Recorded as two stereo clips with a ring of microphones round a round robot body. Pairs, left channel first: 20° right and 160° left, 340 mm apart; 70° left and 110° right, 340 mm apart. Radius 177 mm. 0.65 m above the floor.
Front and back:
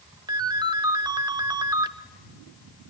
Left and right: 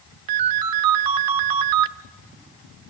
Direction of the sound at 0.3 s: 125° right.